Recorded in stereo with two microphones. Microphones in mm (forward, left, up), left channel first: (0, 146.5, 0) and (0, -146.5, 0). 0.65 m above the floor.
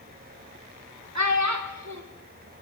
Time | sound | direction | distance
1.1 | a child speaking | 60° right (ahead or behind) | 0.9 m